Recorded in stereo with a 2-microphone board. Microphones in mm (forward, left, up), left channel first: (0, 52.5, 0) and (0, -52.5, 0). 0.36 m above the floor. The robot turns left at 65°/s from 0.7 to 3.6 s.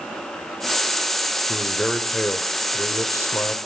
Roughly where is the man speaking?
Centre.